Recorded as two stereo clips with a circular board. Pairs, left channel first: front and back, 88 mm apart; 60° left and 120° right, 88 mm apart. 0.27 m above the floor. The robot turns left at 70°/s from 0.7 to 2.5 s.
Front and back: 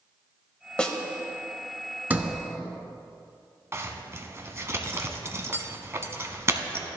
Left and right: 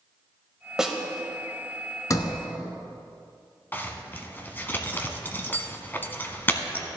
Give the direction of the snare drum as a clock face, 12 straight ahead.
2 o'clock.